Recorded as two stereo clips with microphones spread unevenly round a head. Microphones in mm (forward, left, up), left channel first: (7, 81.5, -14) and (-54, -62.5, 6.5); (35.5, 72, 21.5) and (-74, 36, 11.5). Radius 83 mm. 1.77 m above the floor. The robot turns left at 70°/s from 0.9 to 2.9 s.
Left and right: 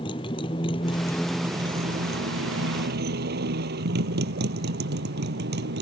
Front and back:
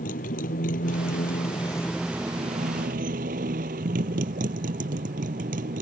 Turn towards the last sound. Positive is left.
turn(degrees=-130)